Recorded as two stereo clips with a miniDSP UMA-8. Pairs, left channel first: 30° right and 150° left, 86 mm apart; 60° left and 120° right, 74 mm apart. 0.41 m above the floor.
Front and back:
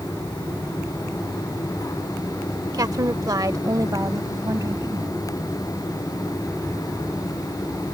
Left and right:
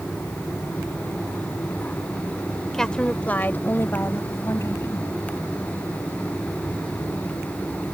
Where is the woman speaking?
140° left; by 5.2 s 100° left.